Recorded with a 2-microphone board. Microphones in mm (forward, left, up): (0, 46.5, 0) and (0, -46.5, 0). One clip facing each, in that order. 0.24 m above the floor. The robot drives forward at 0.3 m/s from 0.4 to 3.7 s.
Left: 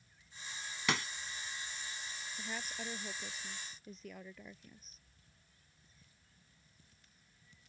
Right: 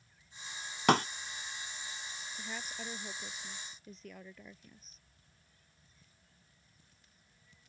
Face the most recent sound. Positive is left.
turn(degrees=0)  # may be behind; listen again after turning